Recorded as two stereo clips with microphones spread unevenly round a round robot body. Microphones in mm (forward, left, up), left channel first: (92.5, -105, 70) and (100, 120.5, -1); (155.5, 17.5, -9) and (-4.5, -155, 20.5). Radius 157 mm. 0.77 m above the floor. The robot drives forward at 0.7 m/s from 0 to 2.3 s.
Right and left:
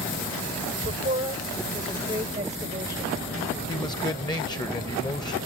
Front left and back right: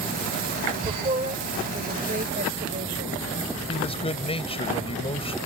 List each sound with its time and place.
0.8 s a woman speaking: 155° left; by 3.6 s 160° left
3.7 s a man speaking: 20° right